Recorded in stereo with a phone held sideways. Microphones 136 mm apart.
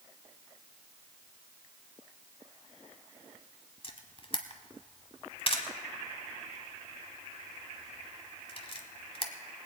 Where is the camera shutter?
45° left (ahead or behind), 1.1 m.